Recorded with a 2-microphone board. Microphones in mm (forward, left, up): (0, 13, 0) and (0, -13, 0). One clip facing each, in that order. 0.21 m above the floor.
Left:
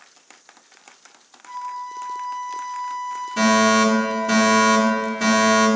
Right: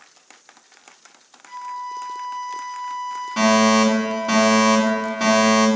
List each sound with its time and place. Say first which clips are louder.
1.4 s a flute: even; 40° right (ahead or behind), 1.5 m
3.4 s a fire alarm: right 1 dB; 50° right (ahead or behind), 3 m